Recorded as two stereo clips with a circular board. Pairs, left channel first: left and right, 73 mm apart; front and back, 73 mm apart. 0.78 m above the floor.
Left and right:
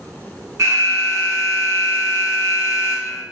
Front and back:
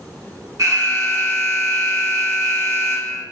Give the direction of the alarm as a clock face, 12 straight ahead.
5 o'clock.